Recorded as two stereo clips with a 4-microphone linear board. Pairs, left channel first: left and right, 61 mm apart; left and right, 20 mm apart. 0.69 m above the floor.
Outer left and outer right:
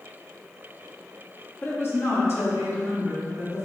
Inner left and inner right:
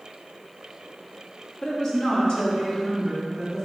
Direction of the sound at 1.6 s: 35° left (ahead or behind).